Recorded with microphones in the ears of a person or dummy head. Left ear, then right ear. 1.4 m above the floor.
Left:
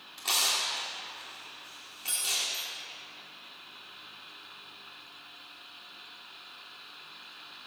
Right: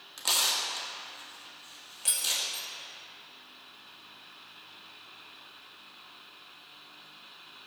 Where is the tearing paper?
40° right (ahead or behind), 1.2 m.